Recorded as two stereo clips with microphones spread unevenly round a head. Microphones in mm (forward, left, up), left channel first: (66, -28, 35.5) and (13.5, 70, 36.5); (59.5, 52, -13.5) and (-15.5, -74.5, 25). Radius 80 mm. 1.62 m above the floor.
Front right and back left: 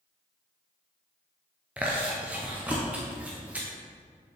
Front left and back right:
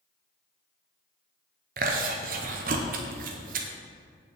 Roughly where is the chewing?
Behind.